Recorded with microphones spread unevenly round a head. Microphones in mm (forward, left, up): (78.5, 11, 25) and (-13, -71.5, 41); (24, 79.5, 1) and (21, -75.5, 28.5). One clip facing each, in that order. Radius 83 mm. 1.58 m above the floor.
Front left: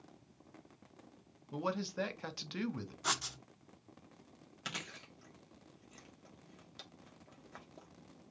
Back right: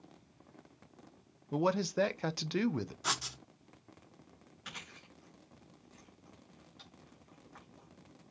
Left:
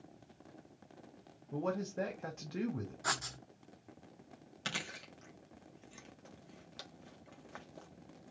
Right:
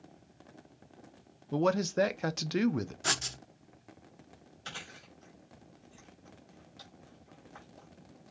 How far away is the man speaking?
About 0.6 m.